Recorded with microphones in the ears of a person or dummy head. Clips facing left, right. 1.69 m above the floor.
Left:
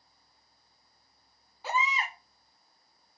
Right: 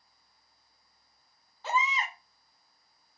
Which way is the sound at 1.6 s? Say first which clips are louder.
Right 1 dB; 10° left (ahead or behind).